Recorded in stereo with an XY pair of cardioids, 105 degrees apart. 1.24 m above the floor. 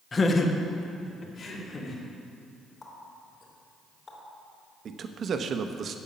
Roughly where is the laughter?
Ahead left.